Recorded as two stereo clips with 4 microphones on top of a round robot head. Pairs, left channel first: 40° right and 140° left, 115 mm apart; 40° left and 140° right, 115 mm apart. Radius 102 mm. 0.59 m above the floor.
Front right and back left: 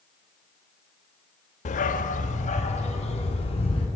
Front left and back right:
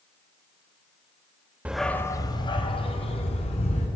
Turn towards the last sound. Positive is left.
turn(degrees=0)